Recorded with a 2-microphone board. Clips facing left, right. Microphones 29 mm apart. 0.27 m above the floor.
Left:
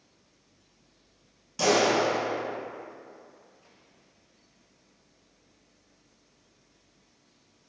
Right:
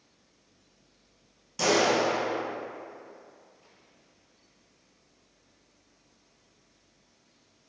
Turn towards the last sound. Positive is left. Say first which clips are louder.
# left 1 dB
turn(degrees=0)  # may be behind; listen again after turning